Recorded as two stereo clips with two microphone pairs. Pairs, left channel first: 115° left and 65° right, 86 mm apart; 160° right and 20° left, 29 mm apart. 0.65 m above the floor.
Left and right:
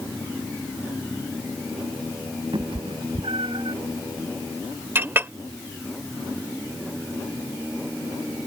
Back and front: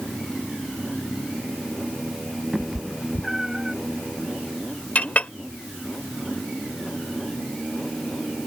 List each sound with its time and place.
2.5 s a cat meowing: 60° right; by 3.8 s 55° right
5.0 s a clink: 125° right